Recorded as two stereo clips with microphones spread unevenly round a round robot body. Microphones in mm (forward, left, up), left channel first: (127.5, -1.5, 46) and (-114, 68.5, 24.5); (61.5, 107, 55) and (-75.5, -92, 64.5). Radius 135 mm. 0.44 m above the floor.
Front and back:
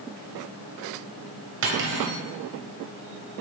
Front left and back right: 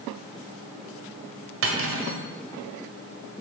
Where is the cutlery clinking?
160° right, 1.5 m.